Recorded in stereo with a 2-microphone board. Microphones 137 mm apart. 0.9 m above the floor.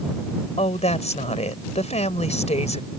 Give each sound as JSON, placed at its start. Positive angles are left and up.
{"t": 0.6, "sound": "a woman speaking", "side_deg": 55}